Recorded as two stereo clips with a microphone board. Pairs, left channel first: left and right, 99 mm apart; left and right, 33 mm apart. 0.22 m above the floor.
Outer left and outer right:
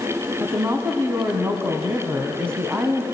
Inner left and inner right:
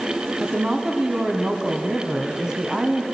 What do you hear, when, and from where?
0.4 s a woman speaking: 25° right (ahead or behind), 1.8 m